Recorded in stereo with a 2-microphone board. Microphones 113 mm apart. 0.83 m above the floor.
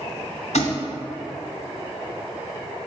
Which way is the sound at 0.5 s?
75° left (ahead or behind).